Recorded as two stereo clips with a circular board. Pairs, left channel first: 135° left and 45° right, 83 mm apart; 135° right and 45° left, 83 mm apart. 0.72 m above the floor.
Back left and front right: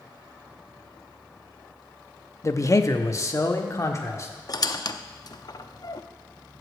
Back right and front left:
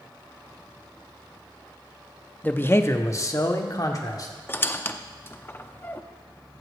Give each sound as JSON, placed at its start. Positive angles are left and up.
{"t": 2.4, "sound": "a man speaking", "azimuth_deg": 165, "distance_m": 0.6}
{"t": 4.5, "sound": "a squeak", "azimuth_deg": 165, "distance_m": 0.6}